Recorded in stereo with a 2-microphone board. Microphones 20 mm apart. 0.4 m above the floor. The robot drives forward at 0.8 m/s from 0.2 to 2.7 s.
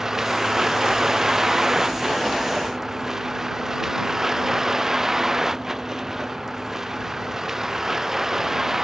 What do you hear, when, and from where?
0.0 s a vehicle: 15° right (ahead or behind)